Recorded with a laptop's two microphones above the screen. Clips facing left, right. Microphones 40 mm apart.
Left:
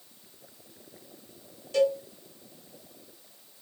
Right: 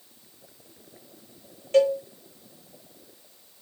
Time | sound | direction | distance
1.7 | a cowbell | 50° right (ahead or behind) | 2.5 m